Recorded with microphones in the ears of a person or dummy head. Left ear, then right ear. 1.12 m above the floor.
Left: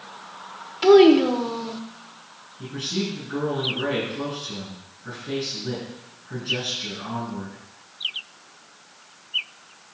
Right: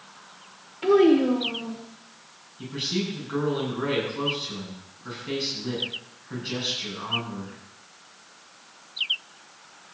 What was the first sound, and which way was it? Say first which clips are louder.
A child speaking: left 5 dB; 45° left (ahead or behind).